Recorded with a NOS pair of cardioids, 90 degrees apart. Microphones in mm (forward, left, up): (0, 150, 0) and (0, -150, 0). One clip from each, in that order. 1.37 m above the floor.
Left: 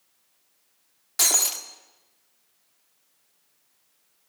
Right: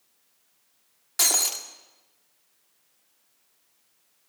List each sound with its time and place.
1.2 s breaking glass: 5° left, 2 m